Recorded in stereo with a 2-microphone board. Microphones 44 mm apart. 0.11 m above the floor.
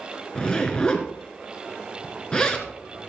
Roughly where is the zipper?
Left.